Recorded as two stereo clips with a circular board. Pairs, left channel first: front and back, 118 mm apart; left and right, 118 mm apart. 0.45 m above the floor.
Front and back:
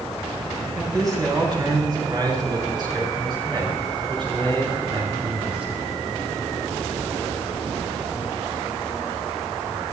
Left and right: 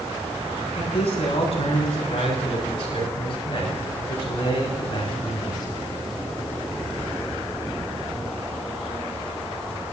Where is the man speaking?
125° left, 8 m; by 5.7 s 145° left, 5.5 m.